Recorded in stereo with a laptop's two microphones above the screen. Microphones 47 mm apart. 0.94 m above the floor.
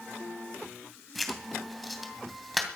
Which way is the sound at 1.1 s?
Centre (ahead or behind).